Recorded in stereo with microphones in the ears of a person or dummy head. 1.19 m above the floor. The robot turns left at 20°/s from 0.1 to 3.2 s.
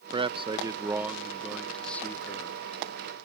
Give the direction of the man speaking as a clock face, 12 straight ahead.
5 o'clock.